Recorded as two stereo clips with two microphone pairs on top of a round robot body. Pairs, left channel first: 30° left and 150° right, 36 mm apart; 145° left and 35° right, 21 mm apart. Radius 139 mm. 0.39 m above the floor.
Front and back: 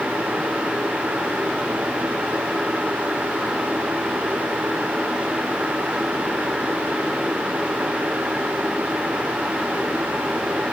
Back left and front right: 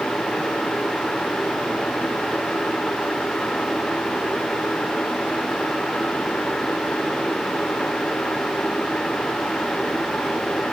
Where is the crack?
I don't hear a crack.